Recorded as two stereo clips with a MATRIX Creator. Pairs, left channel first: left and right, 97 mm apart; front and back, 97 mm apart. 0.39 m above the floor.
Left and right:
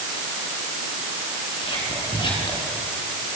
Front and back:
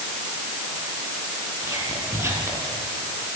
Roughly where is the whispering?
Behind left.